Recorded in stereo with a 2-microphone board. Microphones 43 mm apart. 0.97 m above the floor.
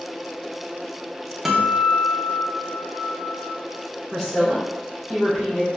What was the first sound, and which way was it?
A guitar, 10° right (ahead or behind).